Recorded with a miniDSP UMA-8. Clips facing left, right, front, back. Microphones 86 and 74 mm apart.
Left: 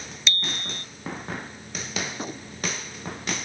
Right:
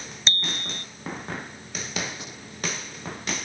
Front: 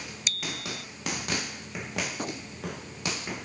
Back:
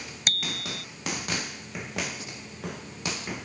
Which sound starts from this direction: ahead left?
A gunshot, at 2.1 s.